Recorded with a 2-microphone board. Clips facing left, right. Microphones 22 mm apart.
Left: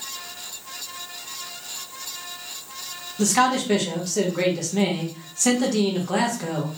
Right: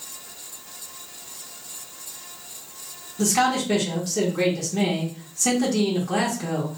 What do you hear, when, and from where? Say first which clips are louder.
3.2 s a man speaking: left 1 dB; 20° left (ahead or behind), 1.1 m